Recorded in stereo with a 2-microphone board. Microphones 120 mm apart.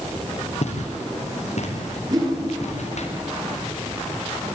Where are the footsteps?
65° left (ahead or behind), 6.5 m.